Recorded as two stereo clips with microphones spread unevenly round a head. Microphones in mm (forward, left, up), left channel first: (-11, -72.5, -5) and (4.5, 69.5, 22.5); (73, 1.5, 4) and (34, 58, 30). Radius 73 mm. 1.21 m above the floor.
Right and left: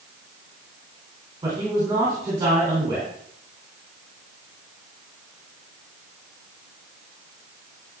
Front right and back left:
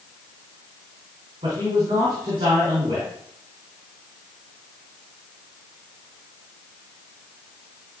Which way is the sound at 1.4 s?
155° left.